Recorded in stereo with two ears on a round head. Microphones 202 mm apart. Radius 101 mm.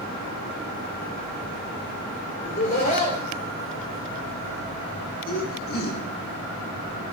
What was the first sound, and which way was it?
Laughter, 30° left (ahead or behind).